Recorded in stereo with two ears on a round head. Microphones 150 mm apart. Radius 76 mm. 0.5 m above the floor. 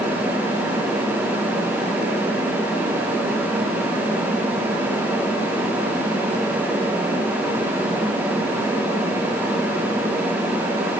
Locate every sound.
Only background noise.